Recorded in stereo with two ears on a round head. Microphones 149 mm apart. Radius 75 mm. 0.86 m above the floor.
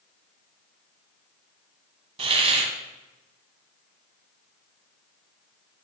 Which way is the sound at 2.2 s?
35° right (ahead or behind).